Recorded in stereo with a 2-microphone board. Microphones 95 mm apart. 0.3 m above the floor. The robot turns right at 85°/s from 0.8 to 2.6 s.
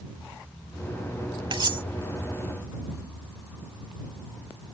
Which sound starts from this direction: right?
Cutlery clinking, at 1.5 s.